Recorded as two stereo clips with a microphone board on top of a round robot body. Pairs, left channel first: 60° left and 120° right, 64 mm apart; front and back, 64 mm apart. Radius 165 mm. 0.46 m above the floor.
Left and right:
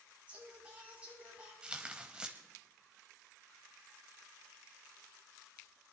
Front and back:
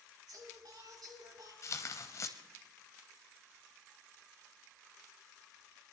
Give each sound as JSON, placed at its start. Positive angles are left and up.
{"t": 0.3, "sound": "singing", "azimuth_deg": 170, "distance_m": 6.0}
{"t": 1.6, "sound": "tearing paper", "azimuth_deg": -45, "distance_m": 0.5}